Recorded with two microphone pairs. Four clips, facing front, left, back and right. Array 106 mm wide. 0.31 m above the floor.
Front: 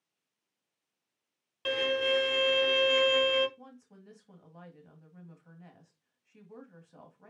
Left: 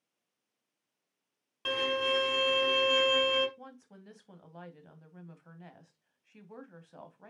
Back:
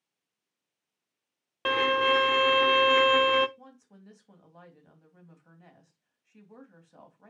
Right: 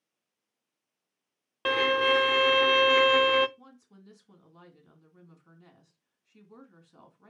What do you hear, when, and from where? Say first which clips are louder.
1.6 s a violin: right 7 dB, back 5 dB; 140° right, 0.5 m
3.6 s a woman speaking: left 4 dB, even; 100° left, 2.0 m